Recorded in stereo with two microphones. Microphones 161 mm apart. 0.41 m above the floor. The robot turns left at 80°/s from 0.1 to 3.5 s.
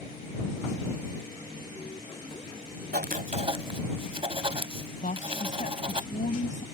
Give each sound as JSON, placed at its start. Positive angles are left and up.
{"t": 2.9, "sound": "writing", "azimuth_deg": -95}
{"t": 5.0, "sound": "a woman speaking", "side_deg": 55}